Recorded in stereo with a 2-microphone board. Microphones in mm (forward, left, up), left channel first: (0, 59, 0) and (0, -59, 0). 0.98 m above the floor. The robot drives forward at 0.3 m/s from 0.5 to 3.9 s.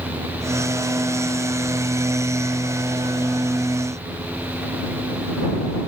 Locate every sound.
Only background noise.